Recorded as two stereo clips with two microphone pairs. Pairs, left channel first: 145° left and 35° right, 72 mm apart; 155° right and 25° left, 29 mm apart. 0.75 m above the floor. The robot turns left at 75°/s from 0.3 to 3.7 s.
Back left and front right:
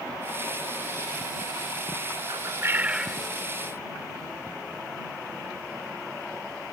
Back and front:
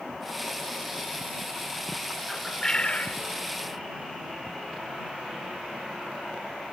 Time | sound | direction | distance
2.3 | a bird | 65° right | ?